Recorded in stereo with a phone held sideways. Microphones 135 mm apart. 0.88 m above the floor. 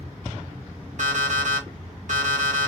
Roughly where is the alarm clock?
Right.